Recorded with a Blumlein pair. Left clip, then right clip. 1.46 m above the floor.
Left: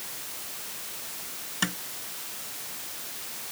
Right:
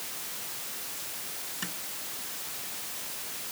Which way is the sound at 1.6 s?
60° left.